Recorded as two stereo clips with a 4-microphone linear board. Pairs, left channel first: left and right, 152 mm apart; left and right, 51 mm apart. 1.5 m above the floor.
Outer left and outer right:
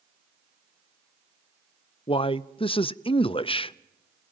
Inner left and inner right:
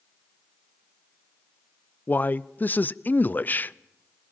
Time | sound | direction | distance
2.1 | a man speaking | 35° left (ahead or behind) | 0.6 m